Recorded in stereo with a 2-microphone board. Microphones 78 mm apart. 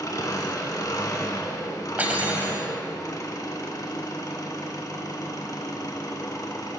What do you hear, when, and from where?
0.0 s an engine running: 50° left (ahead or behind), 0.9 m
2.0 s cutlery clinking: 20° right (ahead or behind), 0.8 m